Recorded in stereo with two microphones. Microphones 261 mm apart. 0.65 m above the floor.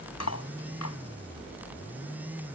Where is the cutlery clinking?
80° left.